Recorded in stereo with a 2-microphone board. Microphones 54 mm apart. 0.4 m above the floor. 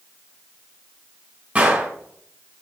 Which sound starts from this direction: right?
A gunshot, at 1.6 s.